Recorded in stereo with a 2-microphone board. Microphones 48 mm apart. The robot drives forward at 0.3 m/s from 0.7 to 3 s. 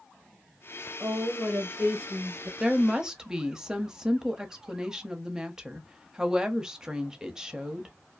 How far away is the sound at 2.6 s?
About 0.6 m.